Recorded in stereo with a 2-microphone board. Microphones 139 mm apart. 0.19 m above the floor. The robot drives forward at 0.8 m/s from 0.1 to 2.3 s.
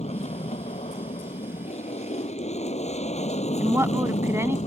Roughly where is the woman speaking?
Centre.